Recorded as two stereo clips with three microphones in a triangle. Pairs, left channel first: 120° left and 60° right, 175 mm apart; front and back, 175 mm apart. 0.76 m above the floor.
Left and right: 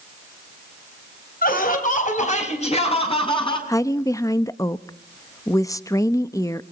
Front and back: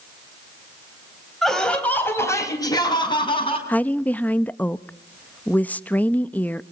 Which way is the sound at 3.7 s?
70° left.